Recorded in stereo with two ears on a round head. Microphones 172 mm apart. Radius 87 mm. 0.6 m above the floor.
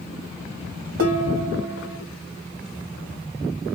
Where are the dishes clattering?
80° right, 1.8 m.